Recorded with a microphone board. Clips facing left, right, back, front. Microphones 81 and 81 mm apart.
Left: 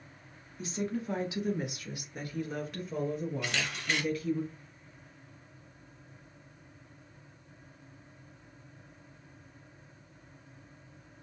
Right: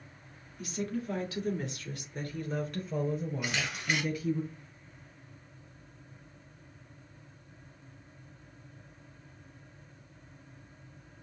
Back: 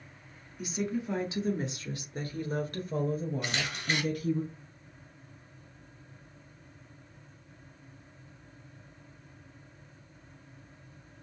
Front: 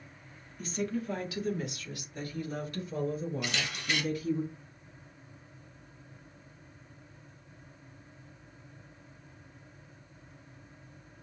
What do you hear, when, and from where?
0.6 s a woman speaking: 110° left, 1.3 m; by 4.4 s 170° right, 2.5 m
3.4 s a camera shutter: 165° right, 1.4 m